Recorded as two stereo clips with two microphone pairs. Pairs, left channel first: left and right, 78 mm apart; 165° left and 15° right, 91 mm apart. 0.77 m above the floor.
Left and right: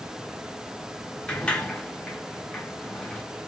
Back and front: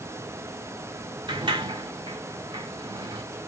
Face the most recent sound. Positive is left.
turn(degrees=15)